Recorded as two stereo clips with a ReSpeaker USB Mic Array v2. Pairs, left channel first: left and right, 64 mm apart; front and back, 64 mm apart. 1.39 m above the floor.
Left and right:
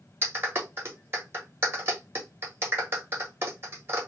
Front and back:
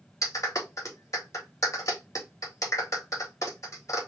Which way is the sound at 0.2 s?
40° right.